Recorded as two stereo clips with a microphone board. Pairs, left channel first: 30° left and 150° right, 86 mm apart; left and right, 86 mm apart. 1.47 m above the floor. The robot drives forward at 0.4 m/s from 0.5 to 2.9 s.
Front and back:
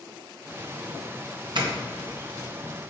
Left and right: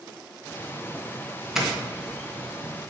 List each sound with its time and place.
1.6 s a doorbell: 175° right, 1.7 m